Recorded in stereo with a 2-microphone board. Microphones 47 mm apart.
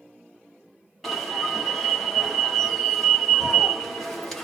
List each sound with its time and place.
1.0 s an alarm: 5° left (ahead or behind), 1.4 m